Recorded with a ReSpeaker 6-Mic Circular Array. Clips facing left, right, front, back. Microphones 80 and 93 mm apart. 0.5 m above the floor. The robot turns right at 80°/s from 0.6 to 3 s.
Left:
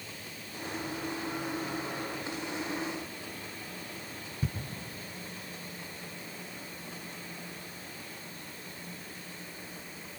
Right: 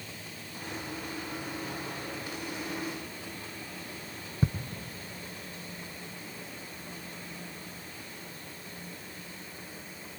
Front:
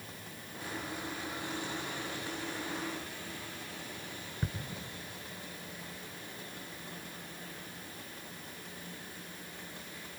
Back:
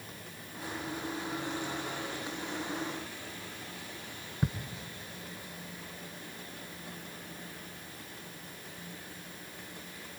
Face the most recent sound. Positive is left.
turn(degrees=-105)